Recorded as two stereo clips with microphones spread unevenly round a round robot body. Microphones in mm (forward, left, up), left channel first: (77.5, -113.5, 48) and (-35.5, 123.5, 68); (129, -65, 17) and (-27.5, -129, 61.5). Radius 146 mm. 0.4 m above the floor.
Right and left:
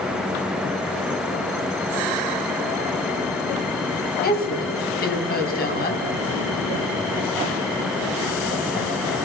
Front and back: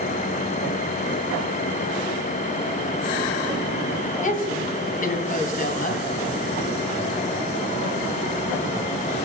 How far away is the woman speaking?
About 3 m.